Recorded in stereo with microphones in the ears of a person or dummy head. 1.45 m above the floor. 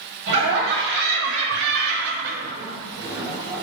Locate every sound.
0.3 s laughter: 50° right (ahead or behind), 1.2 m; by 3.6 s 10° right (ahead or behind), 0.9 m